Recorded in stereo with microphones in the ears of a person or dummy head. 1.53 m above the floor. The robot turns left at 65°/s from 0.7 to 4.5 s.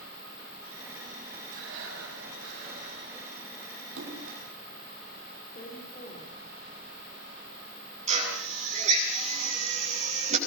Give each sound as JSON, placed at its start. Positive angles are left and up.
{"t": 1.5, "sound": "breathing", "azimuth_deg": -45, "distance_m": 6.0}
{"t": 4.0, "sound": "a splash", "side_deg": -65, "distance_m": 3.5}
{"t": 5.5, "sound": "a woman speaking", "side_deg": 35, "distance_m": 5.5}
{"t": 8.1, "sound": "a drill", "side_deg": -40, "distance_m": 6.5}